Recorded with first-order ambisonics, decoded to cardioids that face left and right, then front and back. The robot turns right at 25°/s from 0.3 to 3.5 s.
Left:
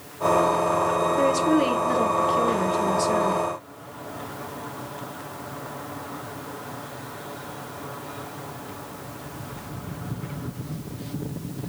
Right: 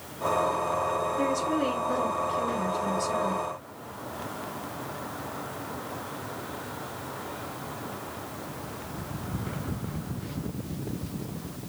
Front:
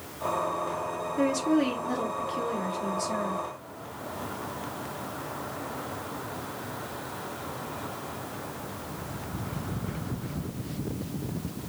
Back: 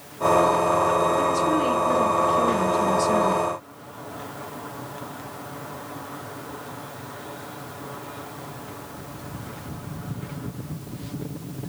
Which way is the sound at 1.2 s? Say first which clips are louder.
Left 6 dB, back 5 dB; 80° left.